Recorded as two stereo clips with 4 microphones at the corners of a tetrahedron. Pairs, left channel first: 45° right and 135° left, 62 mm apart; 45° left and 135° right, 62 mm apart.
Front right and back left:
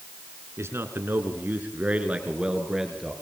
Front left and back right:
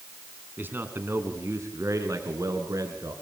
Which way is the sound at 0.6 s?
170° left.